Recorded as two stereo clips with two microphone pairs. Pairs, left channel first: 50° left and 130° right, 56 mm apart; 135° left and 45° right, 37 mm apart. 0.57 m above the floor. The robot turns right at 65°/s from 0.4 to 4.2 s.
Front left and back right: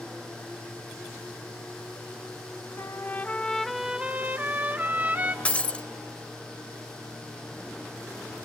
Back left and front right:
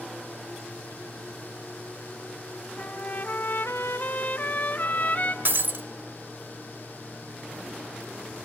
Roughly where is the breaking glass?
Ahead.